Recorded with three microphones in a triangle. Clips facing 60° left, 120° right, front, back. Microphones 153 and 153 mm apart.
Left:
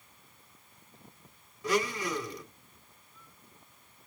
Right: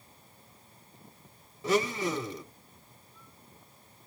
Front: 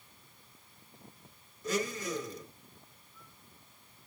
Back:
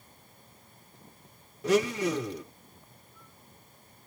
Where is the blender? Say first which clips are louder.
Right 2 dB, back 9 dB; 175° left, 1.1 m.